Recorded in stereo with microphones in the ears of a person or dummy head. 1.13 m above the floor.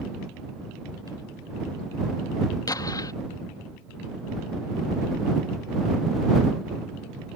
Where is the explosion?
15° left (ahead or behind).